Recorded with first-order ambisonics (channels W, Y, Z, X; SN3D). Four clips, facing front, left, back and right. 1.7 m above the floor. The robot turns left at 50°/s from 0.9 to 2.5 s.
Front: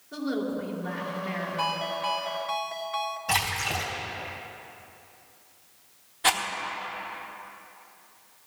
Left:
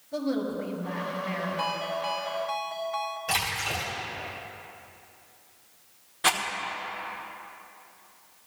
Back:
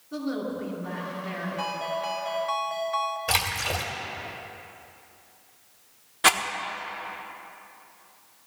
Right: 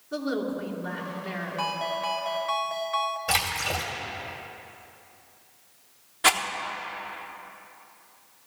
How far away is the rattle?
About 1.0 m.